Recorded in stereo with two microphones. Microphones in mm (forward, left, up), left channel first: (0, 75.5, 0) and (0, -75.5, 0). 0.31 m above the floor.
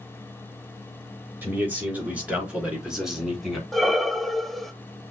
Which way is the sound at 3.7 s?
Centre (ahead or behind).